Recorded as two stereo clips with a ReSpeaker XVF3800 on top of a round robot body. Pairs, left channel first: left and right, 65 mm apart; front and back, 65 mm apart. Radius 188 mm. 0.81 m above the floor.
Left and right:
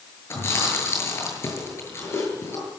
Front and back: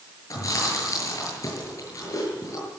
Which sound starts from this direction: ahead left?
Chewing, at 0.3 s.